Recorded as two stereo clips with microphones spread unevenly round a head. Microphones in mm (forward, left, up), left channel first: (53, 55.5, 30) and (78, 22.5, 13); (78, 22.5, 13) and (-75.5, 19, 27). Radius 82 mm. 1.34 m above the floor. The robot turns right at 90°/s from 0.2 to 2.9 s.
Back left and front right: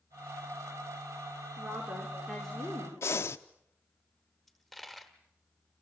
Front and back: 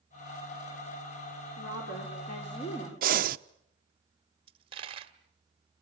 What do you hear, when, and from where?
1.6 s a woman speaking: 30° right, 4.5 m; by 2.9 s 90° left, 4.5 m
3.0 s breathing: 170° left, 0.7 m
4.5 s a dropped coin: 175° left, 1.1 m